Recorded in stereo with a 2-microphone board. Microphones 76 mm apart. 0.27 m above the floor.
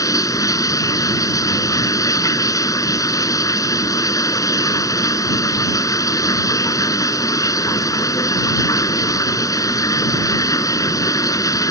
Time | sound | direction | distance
0.0 | running water | 50° left (ahead or behind) | ?